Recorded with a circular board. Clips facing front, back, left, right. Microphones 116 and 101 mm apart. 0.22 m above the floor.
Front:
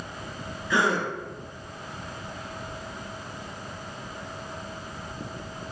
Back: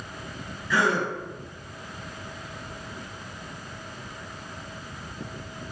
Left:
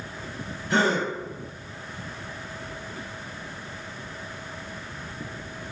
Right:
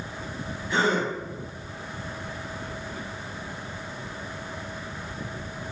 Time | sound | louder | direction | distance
0.7 | a gasp | back 1 dB, left 1 dB | 70° left | 0.9 m